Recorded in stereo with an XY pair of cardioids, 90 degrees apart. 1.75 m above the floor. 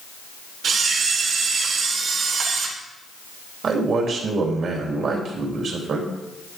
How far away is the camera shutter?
About 3.5 m.